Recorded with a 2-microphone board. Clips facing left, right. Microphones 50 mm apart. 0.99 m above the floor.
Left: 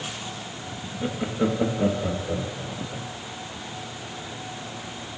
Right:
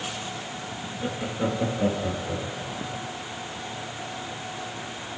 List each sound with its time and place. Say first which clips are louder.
1.0 s laughter: left 3 dB; 15° left (ahead or behind), 1.3 m; by 3.1 s 10° left (ahead or behind), 3.5 m